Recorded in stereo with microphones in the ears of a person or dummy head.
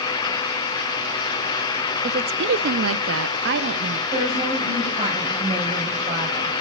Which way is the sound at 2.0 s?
50° right (ahead or behind).